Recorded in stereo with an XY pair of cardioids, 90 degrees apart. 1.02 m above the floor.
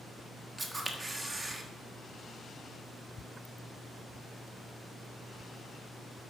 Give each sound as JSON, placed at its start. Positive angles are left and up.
{"t": 0.6, "sound": "a camera shutter", "azimuth_deg": -20, "distance_m": 1.5}